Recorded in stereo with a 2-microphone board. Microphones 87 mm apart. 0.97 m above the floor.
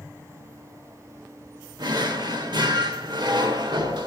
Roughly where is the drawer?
Right.